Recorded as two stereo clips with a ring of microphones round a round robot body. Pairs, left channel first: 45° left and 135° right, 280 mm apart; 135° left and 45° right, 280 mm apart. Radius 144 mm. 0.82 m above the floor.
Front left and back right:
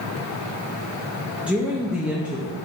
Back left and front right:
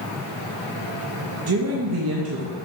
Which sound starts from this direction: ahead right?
A woman speaking, at 1.5 s.